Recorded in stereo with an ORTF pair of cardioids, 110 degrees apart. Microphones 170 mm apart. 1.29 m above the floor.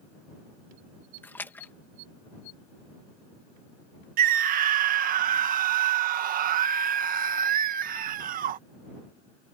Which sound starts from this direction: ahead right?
A scream, at 4.2 s.